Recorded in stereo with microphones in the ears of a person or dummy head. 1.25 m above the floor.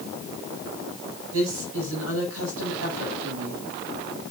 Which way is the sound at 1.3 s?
90° right.